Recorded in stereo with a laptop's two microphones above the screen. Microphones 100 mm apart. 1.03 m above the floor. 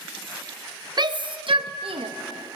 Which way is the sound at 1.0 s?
45° right (ahead or behind).